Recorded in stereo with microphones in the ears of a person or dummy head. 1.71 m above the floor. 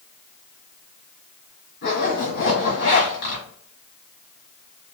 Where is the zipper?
55° left (ahead or behind), 1.6 m.